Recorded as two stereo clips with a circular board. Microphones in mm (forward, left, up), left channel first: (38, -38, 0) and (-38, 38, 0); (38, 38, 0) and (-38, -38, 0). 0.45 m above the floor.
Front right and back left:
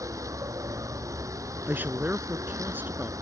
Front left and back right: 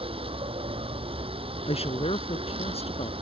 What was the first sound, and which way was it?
A vehicle, 165° right.